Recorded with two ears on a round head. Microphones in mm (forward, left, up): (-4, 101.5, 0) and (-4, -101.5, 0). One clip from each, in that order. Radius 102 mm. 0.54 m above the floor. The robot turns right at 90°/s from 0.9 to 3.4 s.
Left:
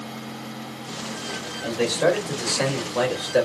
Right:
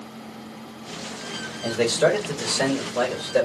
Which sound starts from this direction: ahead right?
A man speaking, at 1.6 s.